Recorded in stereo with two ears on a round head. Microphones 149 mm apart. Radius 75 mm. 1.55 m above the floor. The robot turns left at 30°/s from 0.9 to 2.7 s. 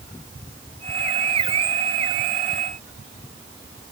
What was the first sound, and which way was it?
Only background noise.